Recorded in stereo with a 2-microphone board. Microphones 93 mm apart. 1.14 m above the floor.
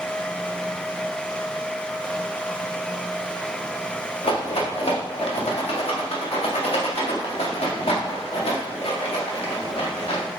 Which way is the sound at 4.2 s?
85° left.